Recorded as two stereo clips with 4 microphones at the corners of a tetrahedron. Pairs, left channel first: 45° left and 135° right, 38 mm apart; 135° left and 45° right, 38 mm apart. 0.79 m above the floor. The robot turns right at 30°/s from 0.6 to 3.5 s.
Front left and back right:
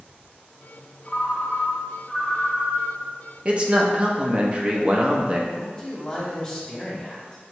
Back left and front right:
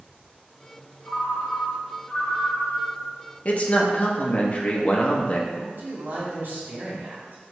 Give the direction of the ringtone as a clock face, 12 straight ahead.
8 o'clock.